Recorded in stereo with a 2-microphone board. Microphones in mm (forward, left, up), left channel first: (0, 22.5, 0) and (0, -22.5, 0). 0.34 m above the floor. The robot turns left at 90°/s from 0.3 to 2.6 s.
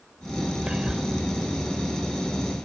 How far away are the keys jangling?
No keys jangling in this recording.